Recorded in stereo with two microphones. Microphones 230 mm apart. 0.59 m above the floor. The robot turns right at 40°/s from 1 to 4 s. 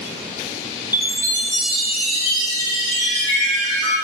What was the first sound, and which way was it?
A chime, 150° left.